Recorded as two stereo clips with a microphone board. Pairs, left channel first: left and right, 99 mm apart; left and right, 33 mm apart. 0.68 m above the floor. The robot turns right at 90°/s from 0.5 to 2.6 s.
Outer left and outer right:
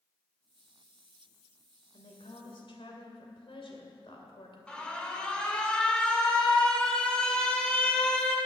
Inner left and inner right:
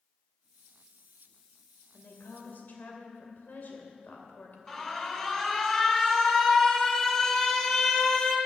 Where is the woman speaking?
55° left, 2.5 m; by 4.6 s 115° left, 2.5 m.